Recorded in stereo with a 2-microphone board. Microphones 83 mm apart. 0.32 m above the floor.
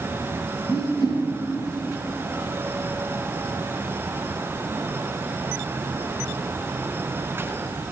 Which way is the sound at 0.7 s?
55° left (ahead or behind).